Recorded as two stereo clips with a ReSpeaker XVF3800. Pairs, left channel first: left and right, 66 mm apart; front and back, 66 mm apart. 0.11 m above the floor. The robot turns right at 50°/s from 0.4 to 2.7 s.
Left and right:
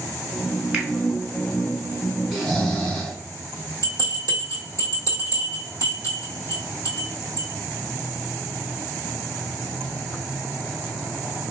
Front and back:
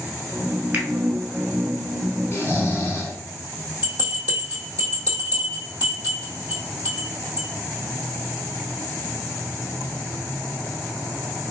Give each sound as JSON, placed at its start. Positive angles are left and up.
{"t": 0.7, "sound": "a finger snap", "azimuth_deg": -145, "distance_m": 1.0}
{"t": 2.3, "sound": "snoring", "azimuth_deg": 0, "distance_m": 1.3}
{"t": 3.8, "sound": "a bell", "azimuth_deg": 125, "distance_m": 1.8}